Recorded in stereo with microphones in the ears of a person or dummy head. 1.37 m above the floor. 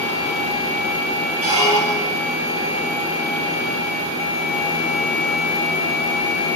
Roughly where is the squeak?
Right.